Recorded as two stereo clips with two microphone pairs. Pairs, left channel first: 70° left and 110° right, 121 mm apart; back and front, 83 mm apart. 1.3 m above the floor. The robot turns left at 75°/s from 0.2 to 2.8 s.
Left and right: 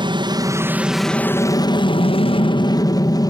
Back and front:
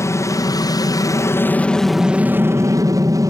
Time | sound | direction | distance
0.0 | an aircraft | 140° right | ?